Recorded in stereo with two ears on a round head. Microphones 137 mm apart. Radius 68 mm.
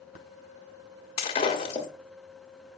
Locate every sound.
1.2 s breaking glass: 40° left (ahead or behind), 1.3 m